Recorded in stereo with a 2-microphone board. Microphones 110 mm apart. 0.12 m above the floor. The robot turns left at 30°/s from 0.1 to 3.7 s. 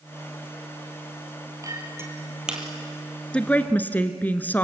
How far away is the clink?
About 2.5 m.